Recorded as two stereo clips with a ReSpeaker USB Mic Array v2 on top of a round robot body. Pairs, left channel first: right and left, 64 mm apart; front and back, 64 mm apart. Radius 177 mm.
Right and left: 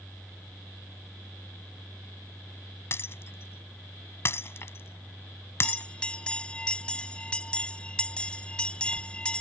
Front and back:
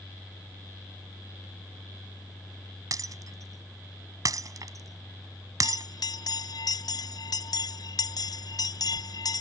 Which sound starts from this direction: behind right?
Breaking glass, at 2.9 s.